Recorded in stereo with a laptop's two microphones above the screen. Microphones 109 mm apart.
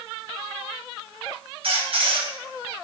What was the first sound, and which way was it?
A squeak, 60° right (ahead or behind).